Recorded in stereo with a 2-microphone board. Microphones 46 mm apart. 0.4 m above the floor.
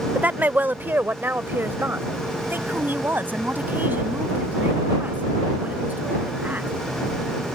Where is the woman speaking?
35° right (ahead or behind); by 6.7 s 40° right (ahead or behind).